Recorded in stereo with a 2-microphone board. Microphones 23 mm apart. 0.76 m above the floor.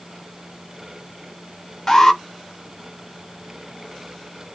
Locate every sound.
1.9 s an alarm: 20° left (ahead or behind), 1.2 m